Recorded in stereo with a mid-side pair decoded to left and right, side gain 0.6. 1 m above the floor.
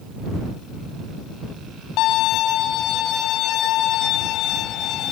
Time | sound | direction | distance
2.0 | a violin | 65° left | ?